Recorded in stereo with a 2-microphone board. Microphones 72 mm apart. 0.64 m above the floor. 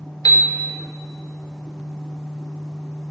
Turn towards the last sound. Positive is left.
turn(degrees=60)  # may be behind; listen again after turning